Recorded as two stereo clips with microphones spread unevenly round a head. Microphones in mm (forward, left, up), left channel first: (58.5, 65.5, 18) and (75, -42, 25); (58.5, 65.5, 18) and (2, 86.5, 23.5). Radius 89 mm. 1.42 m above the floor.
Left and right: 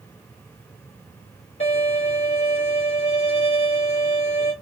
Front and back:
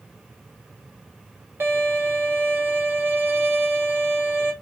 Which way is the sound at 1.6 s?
125° left.